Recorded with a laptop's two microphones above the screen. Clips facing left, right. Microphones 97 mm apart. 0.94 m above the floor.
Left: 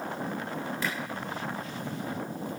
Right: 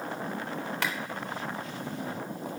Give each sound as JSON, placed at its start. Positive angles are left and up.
{"t": 0.8, "sound": "a clap", "side_deg": -80, "distance_m": 2.5}